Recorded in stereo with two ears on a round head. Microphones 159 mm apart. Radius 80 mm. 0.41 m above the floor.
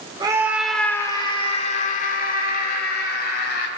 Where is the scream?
25° right (ahead or behind), 0.8 m; by 3.7 s 60° left (ahead or behind), 2 m.